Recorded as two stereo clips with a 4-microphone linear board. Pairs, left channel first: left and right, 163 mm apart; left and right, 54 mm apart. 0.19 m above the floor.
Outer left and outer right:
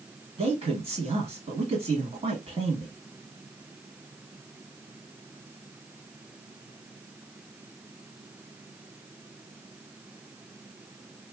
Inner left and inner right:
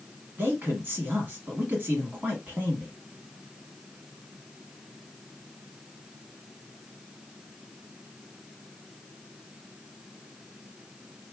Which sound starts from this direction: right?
A man speaking, at 0.4 s.